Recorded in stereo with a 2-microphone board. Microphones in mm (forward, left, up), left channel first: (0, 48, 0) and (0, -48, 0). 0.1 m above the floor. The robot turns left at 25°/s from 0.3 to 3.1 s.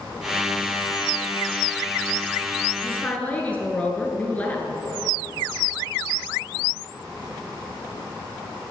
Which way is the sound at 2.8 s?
20° left (ahead or behind).